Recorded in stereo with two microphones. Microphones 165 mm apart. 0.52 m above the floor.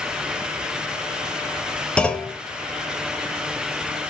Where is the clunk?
5° left (ahead or behind), 0.9 m.